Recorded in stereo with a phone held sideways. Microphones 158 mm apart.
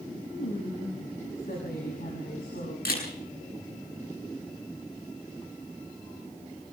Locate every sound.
0.3 s a woman speaking: 80° left, 6.5 m
2.9 s a camera shutter: 85° left, 8 m